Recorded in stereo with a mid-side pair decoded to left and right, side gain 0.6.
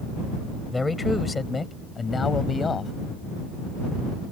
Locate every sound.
0.7 s a man speaking: 15° left; by 2.9 s 30° left